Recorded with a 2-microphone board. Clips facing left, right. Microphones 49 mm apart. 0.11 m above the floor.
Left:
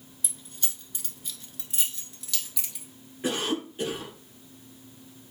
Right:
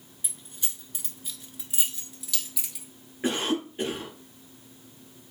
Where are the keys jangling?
15° right (ahead or behind), 0.9 m; by 2.9 s 5° right (ahead or behind), 1.4 m.